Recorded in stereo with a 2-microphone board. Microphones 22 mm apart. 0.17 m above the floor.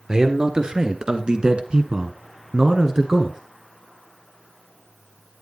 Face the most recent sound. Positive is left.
turn(degrees=-25)  # may be behind; listen again after turning